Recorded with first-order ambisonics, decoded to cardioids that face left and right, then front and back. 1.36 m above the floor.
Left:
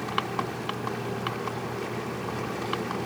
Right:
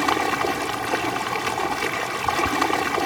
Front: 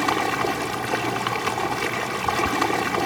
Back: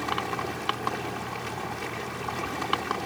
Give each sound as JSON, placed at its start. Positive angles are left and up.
{"t": 0.0, "sound": "running water", "azimuth_deg": -55}